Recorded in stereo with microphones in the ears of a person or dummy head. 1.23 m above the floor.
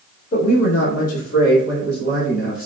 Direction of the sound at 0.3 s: 45° left (ahead or behind).